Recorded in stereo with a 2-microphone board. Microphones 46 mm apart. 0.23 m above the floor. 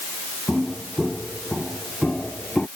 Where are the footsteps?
5° right (ahead or behind); by 2.7 s 20° left (ahead or behind).